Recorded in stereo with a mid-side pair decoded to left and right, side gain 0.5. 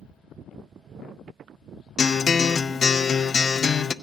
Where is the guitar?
35° left, 0.5 m.